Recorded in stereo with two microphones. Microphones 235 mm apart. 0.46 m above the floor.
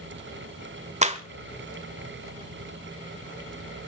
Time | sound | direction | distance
1.0 | a clap | 30° right (ahead or behind) | 1.3 m